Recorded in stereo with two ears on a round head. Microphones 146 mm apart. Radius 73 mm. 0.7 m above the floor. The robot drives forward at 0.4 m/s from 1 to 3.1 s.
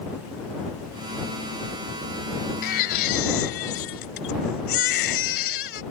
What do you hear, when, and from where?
2.6 s a baby crying: 60° left (ahead or behind); by 5.8 s 65° left (ahead or behind)